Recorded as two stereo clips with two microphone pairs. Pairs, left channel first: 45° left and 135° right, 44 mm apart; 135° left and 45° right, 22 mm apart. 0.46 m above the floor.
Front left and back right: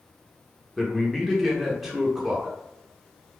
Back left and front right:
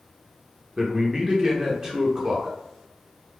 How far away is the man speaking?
About 0.7 m.